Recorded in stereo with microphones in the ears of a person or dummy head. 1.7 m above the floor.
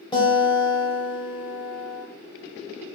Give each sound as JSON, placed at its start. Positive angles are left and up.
{"t": 0.1, "sound": "a guitar", "side_deg": 25, "distance_m": 0.9}